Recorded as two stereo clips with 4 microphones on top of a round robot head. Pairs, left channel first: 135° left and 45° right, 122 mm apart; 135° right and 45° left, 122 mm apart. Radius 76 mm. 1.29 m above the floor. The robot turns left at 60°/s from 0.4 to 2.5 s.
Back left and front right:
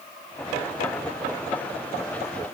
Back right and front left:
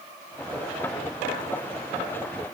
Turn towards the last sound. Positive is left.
No sound to turn to.